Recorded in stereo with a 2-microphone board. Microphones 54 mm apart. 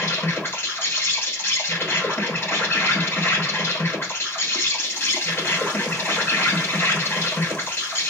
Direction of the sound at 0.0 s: 45° left (ahead or behind).